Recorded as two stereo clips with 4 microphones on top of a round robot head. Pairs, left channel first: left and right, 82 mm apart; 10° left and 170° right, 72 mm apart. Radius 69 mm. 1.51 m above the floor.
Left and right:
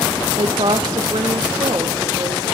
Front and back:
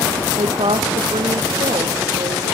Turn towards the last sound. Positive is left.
turn(degrees=-145)